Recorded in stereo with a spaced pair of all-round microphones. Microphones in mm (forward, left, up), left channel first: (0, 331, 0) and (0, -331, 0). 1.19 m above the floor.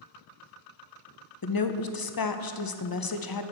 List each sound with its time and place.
1.4 s a woman speaking: 35° left (ahead or behind), 0.5 m